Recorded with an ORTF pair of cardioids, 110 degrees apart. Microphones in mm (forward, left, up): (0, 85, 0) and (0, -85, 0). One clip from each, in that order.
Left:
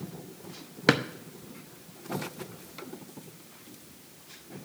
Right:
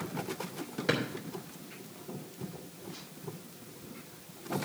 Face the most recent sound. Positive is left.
turn(degrees=60)